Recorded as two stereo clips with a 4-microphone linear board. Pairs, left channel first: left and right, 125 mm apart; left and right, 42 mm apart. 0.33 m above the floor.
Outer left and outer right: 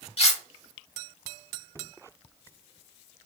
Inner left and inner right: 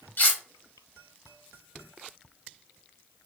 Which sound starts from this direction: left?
Cutlery clinking, at 0.2 s.